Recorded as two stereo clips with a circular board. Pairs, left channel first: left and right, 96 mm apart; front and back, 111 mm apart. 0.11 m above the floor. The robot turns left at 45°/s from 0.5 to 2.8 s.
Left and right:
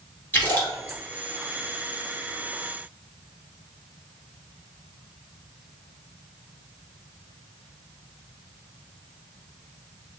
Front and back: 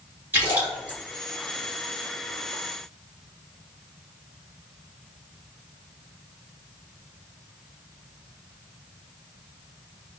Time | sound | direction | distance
0.3 | a splash | 135° left | 1.7 m